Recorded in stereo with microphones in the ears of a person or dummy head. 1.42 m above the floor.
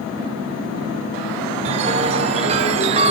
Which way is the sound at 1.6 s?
35° right (ahead or behind).